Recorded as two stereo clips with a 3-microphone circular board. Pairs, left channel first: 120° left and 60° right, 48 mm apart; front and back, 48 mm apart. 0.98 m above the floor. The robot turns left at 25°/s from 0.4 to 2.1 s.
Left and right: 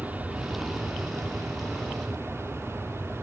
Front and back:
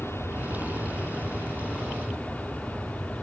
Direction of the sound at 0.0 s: 10° right.